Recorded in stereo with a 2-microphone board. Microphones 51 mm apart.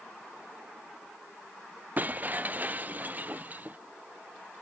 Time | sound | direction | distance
2.0 | breaking glass | 35° right (ahead or behind) | ?